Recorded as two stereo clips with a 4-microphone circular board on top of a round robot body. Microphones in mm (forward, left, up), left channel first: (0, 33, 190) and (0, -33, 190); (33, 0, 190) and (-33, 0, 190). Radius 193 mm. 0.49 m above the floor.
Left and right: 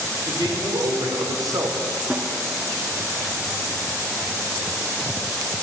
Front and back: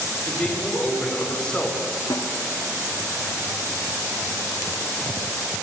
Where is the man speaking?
80° right, 3 m; by 1.8 s 75° right, 2.0 m.